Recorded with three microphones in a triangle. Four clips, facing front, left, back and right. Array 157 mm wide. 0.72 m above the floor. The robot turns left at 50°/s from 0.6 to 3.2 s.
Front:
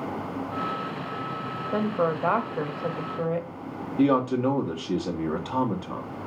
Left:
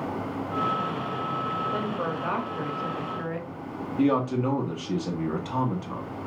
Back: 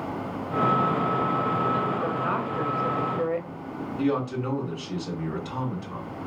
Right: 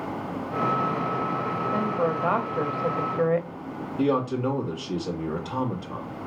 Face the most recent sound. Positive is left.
turn(degrees=25)